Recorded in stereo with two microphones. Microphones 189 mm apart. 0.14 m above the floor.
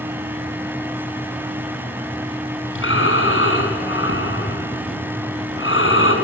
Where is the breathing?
90° left, 5 m.